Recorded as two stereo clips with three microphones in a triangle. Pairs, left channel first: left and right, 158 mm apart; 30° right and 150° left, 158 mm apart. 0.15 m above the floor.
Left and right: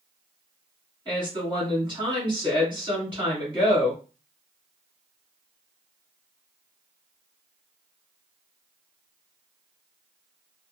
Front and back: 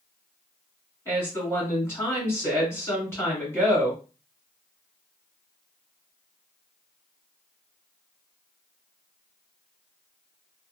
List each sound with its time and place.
1.1 s a woman speaking: 85° right, 1.8 m